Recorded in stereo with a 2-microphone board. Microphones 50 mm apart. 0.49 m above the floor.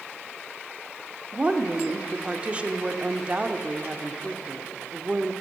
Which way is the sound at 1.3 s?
25° right (ahead or behind).